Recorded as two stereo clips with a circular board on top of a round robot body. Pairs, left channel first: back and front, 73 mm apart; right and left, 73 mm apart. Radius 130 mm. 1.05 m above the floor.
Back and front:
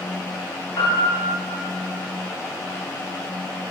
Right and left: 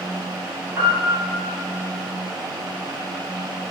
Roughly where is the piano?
Behind left.